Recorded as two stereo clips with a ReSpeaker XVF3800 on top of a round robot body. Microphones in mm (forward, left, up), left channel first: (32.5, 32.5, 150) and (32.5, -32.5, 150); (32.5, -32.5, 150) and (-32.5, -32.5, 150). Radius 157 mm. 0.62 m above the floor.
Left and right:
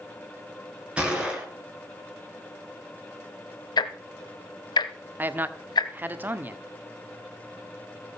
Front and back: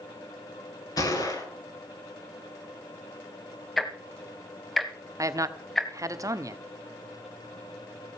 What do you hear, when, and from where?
1.0 s a gunshot: 20° right, 8.5 m
3.8 s ticking: 90° left, 0.9 m
5.2 s a man speaking: 150° right, 1.5 m